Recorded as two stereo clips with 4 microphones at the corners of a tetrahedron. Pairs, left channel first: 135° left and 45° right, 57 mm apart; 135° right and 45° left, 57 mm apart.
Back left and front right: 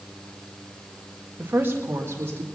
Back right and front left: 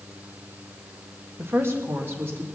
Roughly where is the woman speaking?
Ahead.